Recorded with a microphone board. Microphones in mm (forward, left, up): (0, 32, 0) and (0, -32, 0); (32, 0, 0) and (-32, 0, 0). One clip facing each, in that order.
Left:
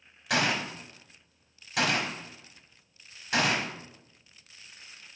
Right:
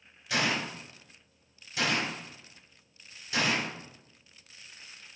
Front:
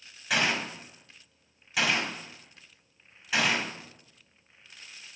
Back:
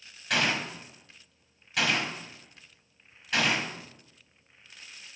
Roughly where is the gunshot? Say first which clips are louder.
Left 2 dB, even; left.